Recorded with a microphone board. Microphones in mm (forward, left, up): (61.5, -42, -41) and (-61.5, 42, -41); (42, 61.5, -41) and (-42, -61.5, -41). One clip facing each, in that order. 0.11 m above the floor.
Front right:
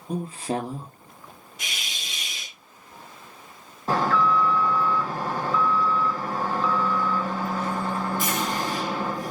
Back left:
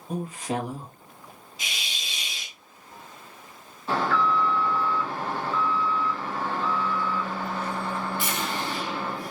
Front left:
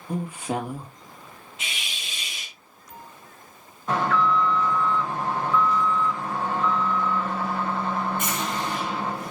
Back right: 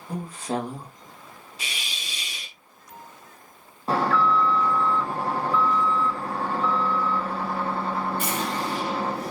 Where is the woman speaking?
15° right, 1.9 m.